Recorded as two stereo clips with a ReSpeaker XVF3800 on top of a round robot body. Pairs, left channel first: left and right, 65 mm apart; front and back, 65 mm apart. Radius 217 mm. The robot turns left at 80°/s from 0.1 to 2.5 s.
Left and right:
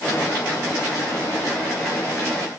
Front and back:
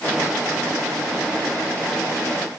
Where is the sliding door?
No sliding door in this recording.